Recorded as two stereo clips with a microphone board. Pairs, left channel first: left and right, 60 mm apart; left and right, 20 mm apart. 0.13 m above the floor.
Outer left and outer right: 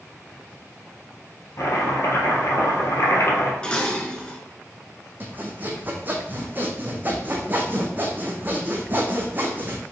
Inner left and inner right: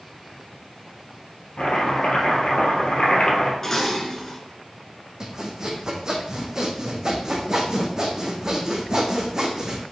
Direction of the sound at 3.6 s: 15° left (ahead or behind).